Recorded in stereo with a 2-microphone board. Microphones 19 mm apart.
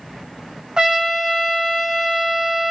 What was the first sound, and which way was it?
A trumpet, 45° right (ahead or behind).